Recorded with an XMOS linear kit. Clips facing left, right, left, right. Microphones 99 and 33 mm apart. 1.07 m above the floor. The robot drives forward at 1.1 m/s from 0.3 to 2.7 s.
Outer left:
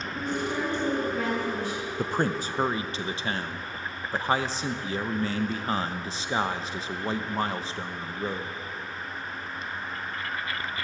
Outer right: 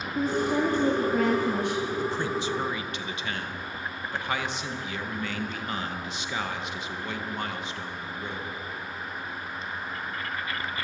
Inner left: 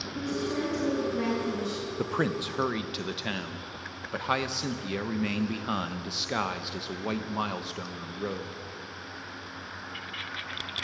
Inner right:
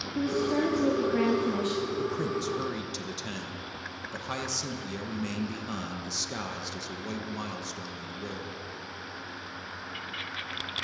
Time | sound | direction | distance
0.1 | a woman speaking | 35° right (ahead or behind) | 2.5 m
2.0 | a man speaking | 50° left (ahead or behind) | 0.7 m